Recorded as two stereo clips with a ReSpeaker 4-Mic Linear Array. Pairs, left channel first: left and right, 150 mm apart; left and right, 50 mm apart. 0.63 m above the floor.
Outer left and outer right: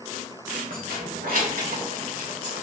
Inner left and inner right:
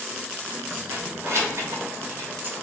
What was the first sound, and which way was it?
Keys jangling, 70° right (ahead or behind).